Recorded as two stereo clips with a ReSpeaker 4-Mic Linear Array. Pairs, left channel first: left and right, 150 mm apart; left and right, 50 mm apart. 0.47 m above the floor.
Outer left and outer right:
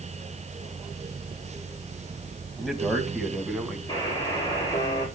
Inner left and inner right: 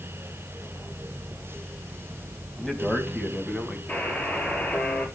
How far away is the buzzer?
About 5 m.